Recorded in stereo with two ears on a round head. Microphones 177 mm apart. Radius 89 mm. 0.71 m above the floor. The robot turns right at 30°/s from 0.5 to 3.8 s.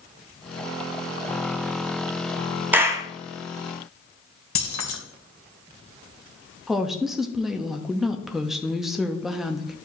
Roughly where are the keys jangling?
Left.